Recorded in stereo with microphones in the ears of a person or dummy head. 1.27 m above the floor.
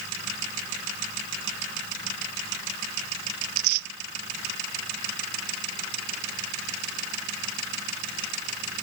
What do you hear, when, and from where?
3.4 s tearing paper: 60° right (ahead or behind)